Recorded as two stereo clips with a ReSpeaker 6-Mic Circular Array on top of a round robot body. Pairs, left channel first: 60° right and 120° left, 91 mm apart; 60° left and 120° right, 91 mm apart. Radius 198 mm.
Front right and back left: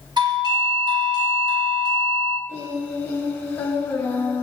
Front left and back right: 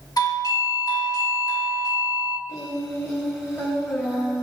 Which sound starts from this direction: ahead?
Singing, at 2.5 s.